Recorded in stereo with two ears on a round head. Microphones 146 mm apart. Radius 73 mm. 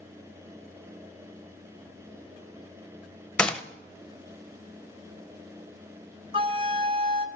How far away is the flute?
About 0.8 m.